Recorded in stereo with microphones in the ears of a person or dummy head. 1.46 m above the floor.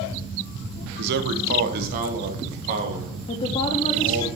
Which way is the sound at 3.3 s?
35° left (ahead or behind).